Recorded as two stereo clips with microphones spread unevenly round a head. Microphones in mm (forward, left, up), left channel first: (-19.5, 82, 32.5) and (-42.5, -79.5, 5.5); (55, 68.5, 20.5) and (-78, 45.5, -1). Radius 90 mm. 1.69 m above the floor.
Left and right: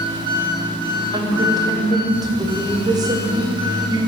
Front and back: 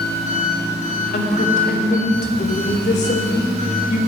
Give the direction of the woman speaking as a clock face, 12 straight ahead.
1 o'clock.